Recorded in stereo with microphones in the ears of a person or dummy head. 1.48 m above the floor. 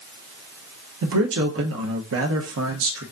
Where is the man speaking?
70° right (ahead or behind), 0.8 m.